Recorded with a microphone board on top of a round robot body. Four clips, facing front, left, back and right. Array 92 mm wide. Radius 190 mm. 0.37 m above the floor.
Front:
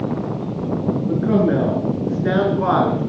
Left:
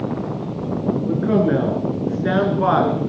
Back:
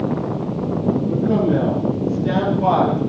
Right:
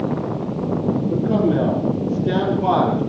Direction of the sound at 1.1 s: 55° left.